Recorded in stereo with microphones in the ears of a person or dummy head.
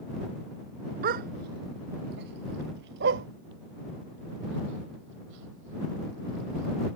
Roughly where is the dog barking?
Right.